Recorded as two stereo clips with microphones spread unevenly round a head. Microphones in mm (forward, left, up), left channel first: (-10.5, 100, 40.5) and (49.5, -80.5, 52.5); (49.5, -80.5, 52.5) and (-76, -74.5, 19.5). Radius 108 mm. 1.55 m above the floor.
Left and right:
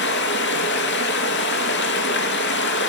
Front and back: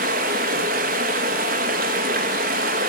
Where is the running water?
145° left, 1.6 m.